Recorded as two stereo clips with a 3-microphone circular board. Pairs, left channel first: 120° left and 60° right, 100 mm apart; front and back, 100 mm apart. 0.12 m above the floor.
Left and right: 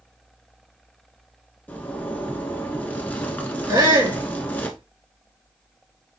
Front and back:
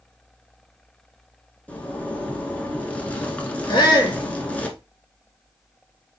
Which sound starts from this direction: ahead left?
A zipper, at 1.7 s.